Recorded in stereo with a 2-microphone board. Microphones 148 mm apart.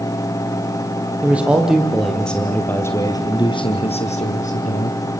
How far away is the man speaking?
About 4.5 m.